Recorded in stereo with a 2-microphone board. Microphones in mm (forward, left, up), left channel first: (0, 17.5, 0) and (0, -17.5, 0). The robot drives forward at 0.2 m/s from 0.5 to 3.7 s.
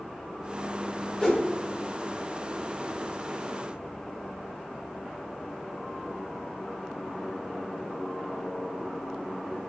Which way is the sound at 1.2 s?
20° left (ahead or behind).